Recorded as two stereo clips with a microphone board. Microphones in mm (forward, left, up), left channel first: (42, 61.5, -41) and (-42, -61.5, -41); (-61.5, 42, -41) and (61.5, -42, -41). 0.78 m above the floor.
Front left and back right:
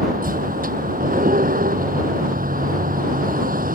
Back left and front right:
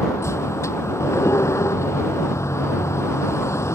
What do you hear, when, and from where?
0.0 s a vehicle: 140° right